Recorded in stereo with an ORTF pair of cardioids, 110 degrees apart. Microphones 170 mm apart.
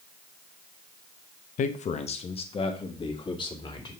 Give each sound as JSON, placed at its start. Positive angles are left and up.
{"t": 1.6, "sound": "a man speaking", "azimuth_deg": 50, "distance_m": 0.8}